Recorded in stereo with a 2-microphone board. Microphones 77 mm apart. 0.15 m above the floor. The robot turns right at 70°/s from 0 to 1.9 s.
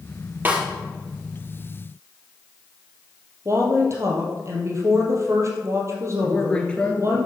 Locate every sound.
0.5 s a snare drum: 25° right (ahead or behind), 3.5 m; by 0.6 s 15° right (ahead or behind), 3.5 m
3.5 s a woman speaking: 40° right (ahead or behind), 3.5 m
6.2 s a man speaking: 15° left (ahead or behind), 3 m